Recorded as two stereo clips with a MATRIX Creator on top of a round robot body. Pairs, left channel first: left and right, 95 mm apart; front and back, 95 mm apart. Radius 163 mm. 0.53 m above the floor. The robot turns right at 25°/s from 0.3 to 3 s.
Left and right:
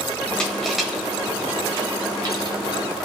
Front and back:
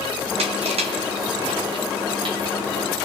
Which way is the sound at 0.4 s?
170° left.